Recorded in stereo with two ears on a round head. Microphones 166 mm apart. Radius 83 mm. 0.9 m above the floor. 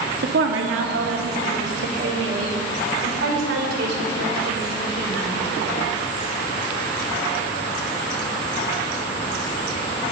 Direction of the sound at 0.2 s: 65° right (ahead or behind).